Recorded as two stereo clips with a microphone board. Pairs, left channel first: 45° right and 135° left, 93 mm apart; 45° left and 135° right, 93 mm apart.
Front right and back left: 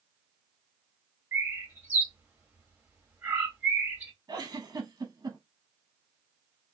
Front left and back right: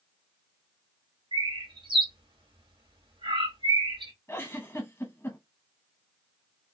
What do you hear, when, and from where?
1.3 s a bird: 155° right, 1.0 m
4.3 s a giggle: 100° left, 1.1 m